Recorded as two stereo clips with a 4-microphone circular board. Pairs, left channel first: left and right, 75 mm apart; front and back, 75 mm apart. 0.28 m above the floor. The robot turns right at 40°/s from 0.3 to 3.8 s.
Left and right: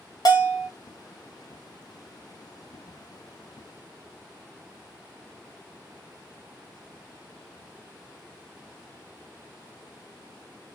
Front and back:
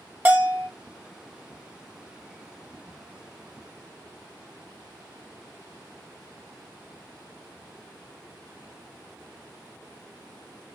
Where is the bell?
115° left, 0.8 m; by 0.7 s 130° left, 0.8 m.